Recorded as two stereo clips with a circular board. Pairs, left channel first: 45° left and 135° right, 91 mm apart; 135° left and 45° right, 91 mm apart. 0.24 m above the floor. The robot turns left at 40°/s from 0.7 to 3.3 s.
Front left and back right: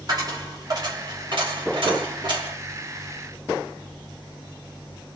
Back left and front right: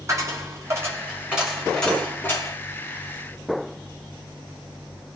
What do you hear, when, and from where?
0.1 s a dropped coin: 100° right, 1.0 m; by 2.6 s 175° right, 1.0 m